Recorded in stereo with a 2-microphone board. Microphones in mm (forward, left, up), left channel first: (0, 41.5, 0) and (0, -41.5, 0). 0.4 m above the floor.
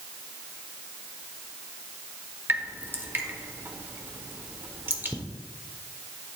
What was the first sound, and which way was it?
Dripping, 25° right (ahead or behind).